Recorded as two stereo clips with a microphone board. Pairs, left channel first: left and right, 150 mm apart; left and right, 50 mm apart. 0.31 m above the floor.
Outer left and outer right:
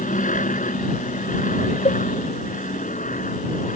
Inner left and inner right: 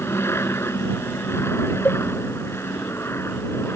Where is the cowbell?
40° left (ahead or behind).